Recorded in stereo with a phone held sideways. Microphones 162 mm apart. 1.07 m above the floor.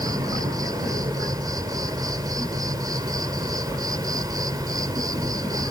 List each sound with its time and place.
0.0 s an insect: 25° right (ahead or behind)